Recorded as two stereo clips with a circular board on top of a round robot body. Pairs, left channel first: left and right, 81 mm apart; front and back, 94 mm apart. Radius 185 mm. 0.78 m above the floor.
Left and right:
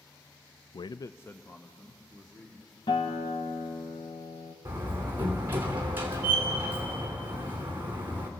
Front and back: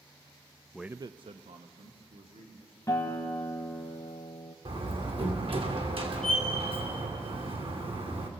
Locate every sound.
0.7 s a man speaking: 80° left, 0.5 m; by 2.8 s straight behind, 3 m
2.9 s a guitar: 65° left, 1.2 m
4.7 s a door slam: 155° right, 2.5 m